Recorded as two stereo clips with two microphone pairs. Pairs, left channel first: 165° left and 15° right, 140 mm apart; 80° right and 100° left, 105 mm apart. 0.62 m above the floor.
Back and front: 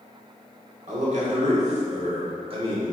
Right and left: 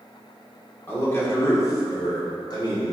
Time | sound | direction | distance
0.9 | a man speaking | 15° right | 2.0 m